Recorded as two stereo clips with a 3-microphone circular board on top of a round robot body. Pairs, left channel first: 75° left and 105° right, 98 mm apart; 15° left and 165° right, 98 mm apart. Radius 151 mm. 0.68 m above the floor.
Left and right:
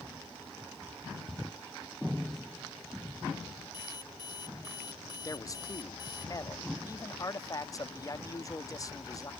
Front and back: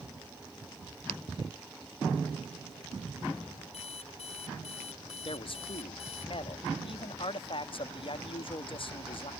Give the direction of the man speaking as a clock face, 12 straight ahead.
11 o'clock.